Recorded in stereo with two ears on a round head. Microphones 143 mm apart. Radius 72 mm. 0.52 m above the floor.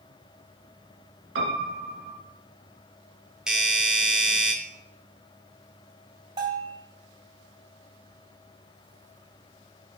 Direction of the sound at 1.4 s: 80° right.